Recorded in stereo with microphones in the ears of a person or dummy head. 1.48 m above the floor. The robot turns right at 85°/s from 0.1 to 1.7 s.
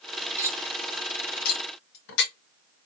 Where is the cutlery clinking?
20° right (ahead or behind), 1.0 m; by 2.3 s 60° left (ahead or behind), 1.0 m.